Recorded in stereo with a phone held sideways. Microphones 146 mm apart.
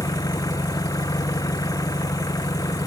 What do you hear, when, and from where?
0.0 s an engine running: 25° left (ahead or behind)